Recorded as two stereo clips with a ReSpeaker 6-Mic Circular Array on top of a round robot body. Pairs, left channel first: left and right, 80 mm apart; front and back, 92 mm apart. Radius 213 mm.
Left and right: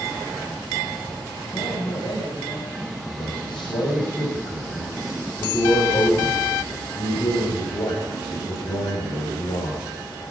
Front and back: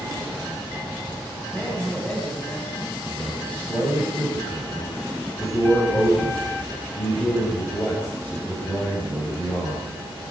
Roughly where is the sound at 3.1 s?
Left.